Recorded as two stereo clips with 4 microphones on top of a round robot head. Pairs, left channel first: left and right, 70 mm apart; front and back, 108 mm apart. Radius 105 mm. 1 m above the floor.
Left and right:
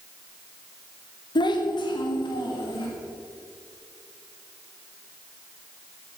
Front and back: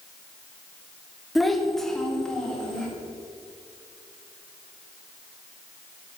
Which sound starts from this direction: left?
A child speaking, at 1.4 s.